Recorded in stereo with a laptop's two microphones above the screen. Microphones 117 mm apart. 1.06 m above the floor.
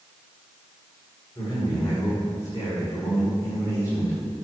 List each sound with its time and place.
1.4 s a man speaking: 35° left (ahead or behind), 4.5 m